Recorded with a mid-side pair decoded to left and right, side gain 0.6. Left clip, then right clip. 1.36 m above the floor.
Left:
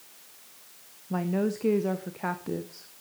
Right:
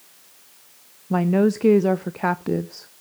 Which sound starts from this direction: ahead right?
A woman speaking, at 1.1 s.